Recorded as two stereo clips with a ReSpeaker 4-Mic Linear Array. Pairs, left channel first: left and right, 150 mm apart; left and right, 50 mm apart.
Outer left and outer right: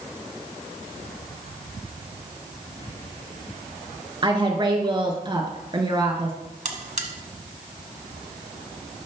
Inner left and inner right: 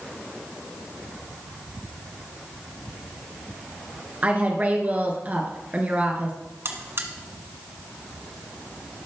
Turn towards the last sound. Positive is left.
turn(degrees=-55)  # may be behind; listen again after turning